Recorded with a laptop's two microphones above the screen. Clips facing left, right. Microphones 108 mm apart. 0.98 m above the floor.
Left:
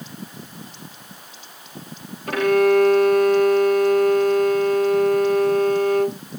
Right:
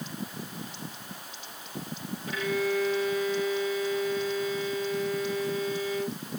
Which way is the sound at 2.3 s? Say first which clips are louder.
Left 13 dB; 75° left (ahead or behind).